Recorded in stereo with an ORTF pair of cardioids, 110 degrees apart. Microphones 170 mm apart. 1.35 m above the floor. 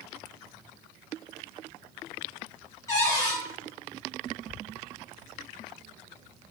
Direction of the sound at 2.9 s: 20° left.